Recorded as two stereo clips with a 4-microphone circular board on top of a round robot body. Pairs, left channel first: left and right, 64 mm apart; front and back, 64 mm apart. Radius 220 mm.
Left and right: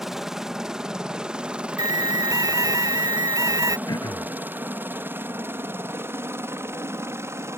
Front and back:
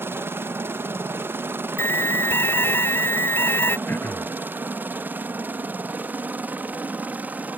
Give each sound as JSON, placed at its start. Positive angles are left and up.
{"t": 0.0, "sound": "a helicopter", "azimuth_deg": -170}
{"t": 1.8, "sound": "an alarm", "azimuth_deg": -60}
{"t": 3.9, "sound": "throat clearing", "azimuth_deg": 65}